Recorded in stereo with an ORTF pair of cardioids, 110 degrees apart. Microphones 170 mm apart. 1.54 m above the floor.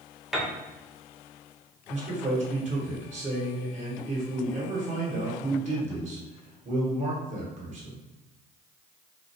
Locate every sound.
0.3 s a piano: straight ahead, 0.5 m
1.9 s a man speaking: 50° right, 1.3 m